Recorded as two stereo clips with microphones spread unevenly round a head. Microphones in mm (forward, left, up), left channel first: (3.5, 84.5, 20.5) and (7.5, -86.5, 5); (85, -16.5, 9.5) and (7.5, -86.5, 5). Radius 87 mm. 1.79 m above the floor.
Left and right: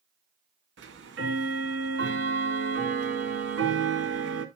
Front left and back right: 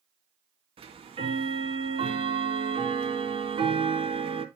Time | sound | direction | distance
0.8 | ticking | 110° right | 1.9 m